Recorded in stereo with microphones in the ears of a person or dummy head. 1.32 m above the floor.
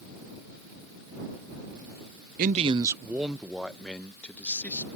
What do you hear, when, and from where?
2.4 s a man speaking: 40° right (ahead or behind); by 4.9 s 10° left (ahead or behind)